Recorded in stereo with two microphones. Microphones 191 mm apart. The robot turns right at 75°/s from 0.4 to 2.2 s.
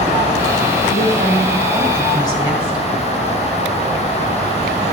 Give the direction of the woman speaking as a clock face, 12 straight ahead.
3 o'clock.